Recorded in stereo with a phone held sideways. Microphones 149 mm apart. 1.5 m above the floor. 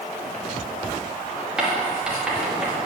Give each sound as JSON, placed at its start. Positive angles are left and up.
{"t": 1.6, "sound": "writing", "side_deg": -5, "distance_m": 2.5}